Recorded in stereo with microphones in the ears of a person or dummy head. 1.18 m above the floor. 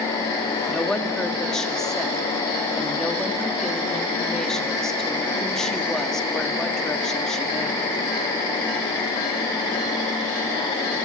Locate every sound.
0.7 s a woman speaking: 5° left (ahead or behind), 1.7 m